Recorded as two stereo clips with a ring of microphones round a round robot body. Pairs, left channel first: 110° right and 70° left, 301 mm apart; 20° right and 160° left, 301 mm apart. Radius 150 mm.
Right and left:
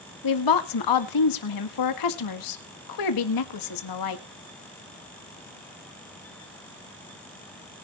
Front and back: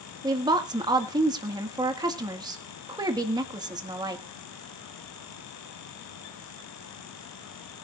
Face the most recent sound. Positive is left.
turn(degrees=-125)